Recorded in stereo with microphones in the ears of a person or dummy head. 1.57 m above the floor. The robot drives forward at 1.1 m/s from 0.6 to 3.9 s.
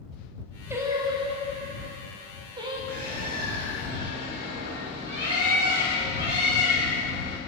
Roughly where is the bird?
Right.